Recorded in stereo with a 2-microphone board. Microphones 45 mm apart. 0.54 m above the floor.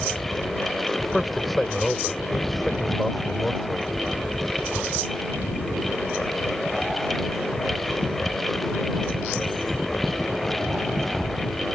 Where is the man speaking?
Centre (ahead or behind).